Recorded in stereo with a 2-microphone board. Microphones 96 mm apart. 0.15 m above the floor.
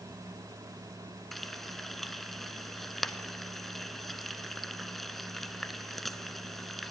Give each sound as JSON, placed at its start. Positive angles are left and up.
{"t": 1.3, "sound": "frying", "side_deg": 0, "distance_m": 0.7}